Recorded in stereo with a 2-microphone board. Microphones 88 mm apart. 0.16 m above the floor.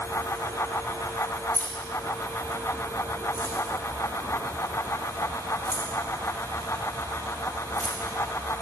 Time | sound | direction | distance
1.5 | keys jangling | 30° left (ahead or behind) | 1.8 m